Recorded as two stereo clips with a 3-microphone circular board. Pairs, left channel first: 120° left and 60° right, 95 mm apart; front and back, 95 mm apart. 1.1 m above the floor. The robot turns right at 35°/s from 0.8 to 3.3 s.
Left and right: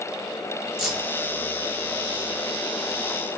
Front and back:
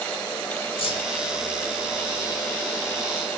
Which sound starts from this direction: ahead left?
Keys jangling, at 0.8 s.